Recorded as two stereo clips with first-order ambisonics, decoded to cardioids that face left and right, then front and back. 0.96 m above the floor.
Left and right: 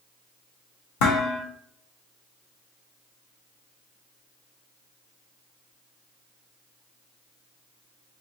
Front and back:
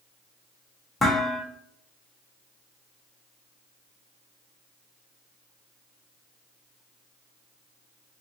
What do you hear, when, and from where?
1.0 s dishes clattering: 80° left, 0.9 m